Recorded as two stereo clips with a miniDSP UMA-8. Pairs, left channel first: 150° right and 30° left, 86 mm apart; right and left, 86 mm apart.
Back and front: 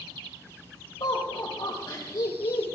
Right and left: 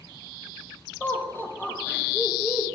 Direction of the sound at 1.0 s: 150° right.